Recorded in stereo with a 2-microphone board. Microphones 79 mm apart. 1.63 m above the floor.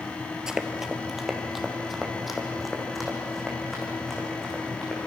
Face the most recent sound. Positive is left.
turn(degrees=0)  # may be behind; listen again after turning